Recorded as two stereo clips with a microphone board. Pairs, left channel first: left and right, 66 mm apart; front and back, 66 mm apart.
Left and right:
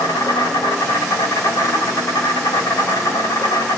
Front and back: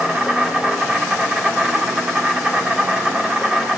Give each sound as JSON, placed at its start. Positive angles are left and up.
{"t": 0.0, "sound": "an insect", "azimuth_deg": 105, "distance_m": 3.5}